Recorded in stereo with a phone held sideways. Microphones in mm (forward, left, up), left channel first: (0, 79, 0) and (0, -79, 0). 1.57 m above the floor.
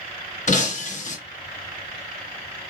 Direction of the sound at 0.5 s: 50° left (ahead or behind).